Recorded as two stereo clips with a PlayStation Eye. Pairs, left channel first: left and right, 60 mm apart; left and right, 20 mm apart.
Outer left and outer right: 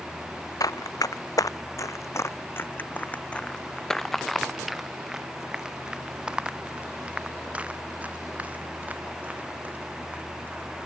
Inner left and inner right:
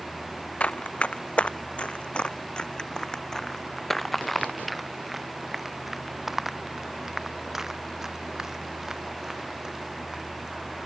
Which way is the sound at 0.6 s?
85° left.